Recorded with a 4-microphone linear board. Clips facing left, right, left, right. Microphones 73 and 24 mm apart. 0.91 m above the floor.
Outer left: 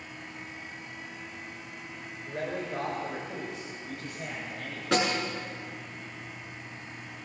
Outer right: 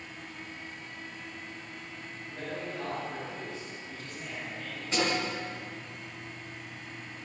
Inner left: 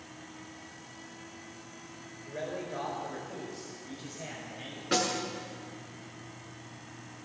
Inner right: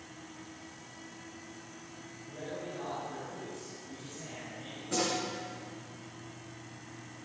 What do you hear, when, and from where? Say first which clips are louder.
2.3 s a man speaking: outer left 5 dB, inner left 4 dB; 75° left (ahead or behind), 3.5 m
4.9 s a snare drum: outer left 3 dB, inner left 3 dB; 80° left, 7 m